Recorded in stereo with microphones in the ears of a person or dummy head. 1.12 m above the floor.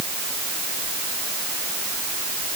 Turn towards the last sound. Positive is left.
No sound to turn to.